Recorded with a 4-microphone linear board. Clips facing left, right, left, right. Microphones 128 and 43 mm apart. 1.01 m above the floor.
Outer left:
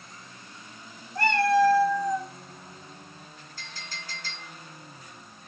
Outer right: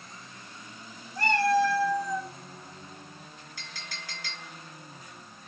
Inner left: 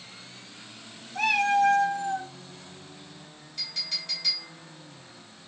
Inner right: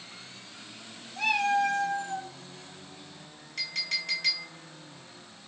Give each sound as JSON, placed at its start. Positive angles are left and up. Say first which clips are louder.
{"t": 1.1, "sound": "a cat meowing", "louder": "outer left 2 dB, inner left 3 dB", "side_deg": 70, "distance_m": 1.0}
{"t": 3.6, "sound": "a clink", "louder": "outer left 2 dB, inner right 4 dB", "side_deg": -85, "distance_m": 2.5}